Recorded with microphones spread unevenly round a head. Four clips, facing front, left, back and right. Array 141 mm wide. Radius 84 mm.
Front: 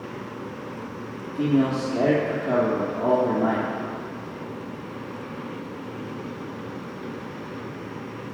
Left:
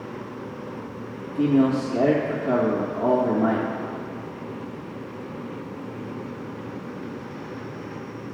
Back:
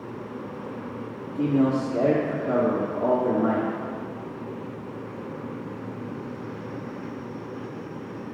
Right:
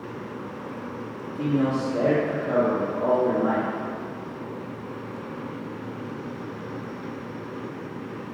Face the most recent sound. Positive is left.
turn(degrees=60)